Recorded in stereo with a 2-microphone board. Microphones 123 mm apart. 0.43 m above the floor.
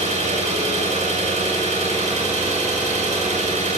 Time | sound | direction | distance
0.0 | an engine running | 65° right (ahead or behind) | 0.7 m